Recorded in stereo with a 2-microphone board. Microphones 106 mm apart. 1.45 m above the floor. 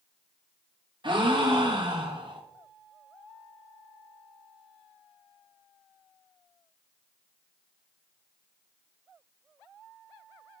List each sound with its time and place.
1.0 s a gasp: 50° right (ahead or behind), 1.2 m